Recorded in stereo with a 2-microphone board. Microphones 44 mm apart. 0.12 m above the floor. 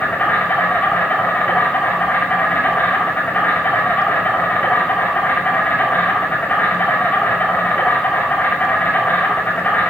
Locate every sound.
0.0 s an insect: 40° left (ahead or behind), 7 m